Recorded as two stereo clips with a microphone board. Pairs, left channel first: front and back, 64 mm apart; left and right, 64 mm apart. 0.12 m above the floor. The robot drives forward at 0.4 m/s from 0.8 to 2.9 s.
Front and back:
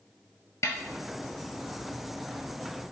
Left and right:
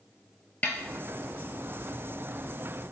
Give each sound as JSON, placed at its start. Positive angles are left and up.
{"t": 0.6, "sound": "a snare drum", "azimuth_deg": 30, "distance_m": 0.6}